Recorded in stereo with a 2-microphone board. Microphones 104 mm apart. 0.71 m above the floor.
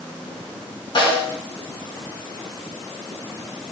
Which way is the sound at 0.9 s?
50° left (ahead or behind).